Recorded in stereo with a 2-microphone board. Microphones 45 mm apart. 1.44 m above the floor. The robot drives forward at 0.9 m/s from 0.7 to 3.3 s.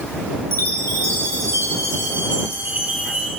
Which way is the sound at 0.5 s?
65° right (ahead or behind).